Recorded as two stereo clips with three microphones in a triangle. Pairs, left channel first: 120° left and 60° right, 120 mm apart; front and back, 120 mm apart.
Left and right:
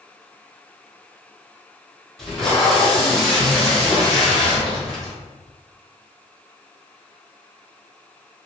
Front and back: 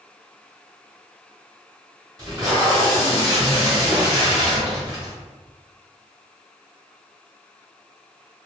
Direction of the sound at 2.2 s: 155° right.